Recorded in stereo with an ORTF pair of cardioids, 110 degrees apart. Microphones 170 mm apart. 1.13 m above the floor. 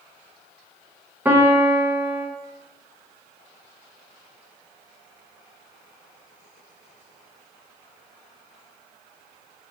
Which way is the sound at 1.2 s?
10° right.